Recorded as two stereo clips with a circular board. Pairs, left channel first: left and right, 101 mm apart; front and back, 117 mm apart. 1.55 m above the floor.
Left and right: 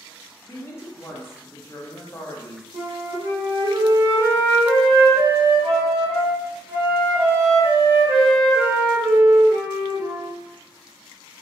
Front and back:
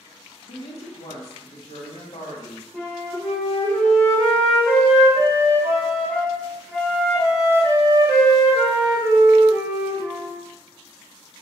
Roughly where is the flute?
Ahead right.